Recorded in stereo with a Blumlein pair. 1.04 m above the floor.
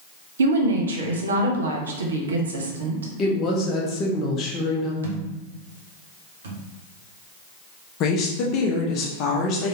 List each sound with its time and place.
0.4 s a woman speaking: 70° right, 1.0 m
3.2 s a woman speaking: 25° left, 1.0 m
5.0 s a thud: 65° right, 1.0 m
8.0 s a woman speaking: 35° left, 0.9 m